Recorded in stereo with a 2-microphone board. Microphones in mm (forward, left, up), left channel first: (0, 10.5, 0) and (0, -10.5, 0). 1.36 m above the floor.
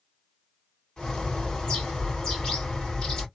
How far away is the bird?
About 2.0 m.